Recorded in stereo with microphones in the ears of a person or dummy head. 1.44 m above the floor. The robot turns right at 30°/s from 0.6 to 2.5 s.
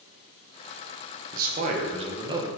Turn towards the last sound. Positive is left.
turn(degrees=-15)